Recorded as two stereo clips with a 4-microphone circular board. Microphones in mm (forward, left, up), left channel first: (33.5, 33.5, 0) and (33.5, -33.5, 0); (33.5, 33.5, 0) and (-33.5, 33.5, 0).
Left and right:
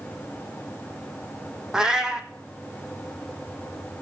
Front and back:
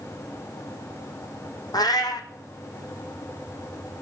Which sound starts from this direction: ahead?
A cat meowing, at 1.7 s.